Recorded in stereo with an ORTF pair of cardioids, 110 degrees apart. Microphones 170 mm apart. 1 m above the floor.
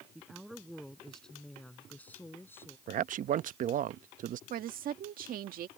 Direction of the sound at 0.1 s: 5° right.